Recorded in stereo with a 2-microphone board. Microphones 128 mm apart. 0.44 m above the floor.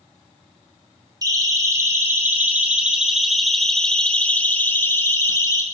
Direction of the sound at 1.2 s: 30° right (ahead or behind).